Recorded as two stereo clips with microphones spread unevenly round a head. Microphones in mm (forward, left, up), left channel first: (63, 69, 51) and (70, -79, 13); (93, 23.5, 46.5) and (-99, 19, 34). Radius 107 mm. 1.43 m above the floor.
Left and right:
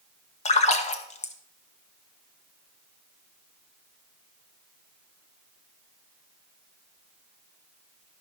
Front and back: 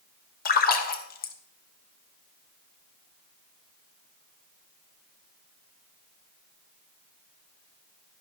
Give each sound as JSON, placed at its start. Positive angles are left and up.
{"t": 0.5, "sound": "a splash", "azimuth_deg": 45, "distance_m": 1.0}